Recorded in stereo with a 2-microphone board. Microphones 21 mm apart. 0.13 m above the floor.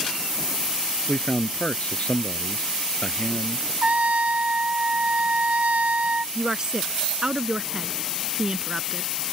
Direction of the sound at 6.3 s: 35° right (ahead or behind).